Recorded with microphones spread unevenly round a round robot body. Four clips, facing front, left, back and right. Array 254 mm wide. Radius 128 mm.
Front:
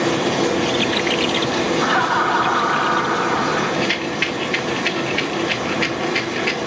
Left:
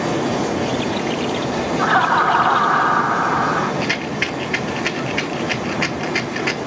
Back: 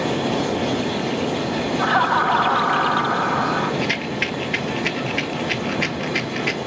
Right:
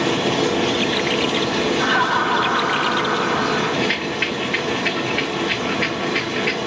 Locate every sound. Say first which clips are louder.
0.0 s running water: right 1 dB, front 3 dB; 65° right, 4 m
1.8 s laughter: left 6 dB, back 2 dB; 155° left, 1.3 m
3.8 s a rattle: even, front 2 dB; 140° left, 0.6 m